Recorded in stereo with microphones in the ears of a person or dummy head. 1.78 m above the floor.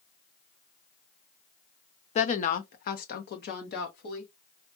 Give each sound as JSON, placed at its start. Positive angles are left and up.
{"t": 2.1, "sound": "a woman speaking", "side_deg": 35, "distance_m": 0.6}